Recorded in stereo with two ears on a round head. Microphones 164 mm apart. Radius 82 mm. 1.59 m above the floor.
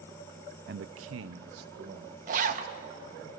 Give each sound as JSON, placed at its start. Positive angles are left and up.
{"t": 0.7, "sound": "a man speaking", "side_deg": -55, "distance_m": 0.6}
{"t": 2.3, "sound": "a zipper", "side_deg": -45, "distance_m": 1.3}